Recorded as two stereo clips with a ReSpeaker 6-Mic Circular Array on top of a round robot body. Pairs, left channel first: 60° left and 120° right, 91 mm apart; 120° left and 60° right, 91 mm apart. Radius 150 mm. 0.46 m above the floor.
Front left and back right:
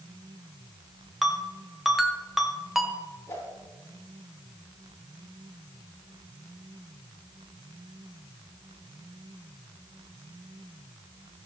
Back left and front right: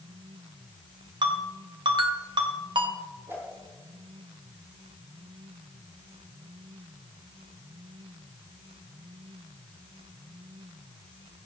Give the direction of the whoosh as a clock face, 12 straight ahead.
12 o'clock.